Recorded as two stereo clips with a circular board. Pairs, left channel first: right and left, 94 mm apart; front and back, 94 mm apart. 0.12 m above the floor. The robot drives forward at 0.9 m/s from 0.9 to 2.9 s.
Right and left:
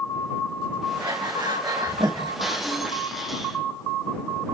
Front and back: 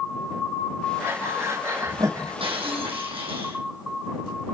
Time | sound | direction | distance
1.0 | breathing | 115° left | 5 m
2.4 | breaking glass | straight behind | 3.5 m